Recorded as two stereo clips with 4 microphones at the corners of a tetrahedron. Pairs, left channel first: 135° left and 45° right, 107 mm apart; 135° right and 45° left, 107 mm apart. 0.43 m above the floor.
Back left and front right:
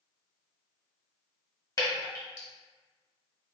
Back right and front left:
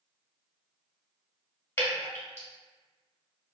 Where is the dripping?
170° left, 1.0 m.